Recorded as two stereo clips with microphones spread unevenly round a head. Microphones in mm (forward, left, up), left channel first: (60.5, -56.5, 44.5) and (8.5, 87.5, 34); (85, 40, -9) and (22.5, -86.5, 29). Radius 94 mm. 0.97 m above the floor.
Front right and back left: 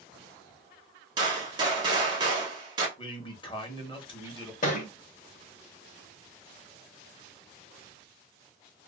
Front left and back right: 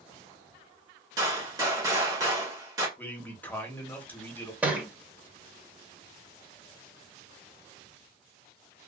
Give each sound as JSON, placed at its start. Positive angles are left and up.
{"t": 1.2, "sound": "a gunshot", "azimuth_deg": 165, "distance_m": 0.8}
{"t": 3.0, "sound": "a man speaking", "azimuth_deg": -10, "distance_m": 1.0}
{"t": 4.6, "sound": "a thud", "azimuth_deg": -55, "distance_m": 0.9}